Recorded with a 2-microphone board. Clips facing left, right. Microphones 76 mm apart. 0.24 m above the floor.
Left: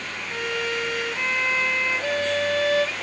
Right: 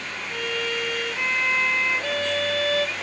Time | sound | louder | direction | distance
0.3 | a violin | left 1 dB | 20° left (ahead or behind) | 0.9 m